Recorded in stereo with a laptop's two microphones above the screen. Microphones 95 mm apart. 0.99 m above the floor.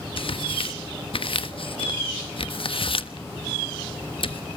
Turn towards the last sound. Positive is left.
turn(degrees=65)  # may be behind; listen again after turning